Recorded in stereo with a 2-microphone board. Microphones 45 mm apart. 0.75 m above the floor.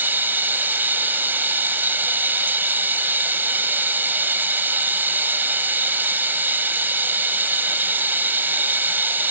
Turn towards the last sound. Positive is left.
turn(degrees=-45)  # may be behind; listen again after turning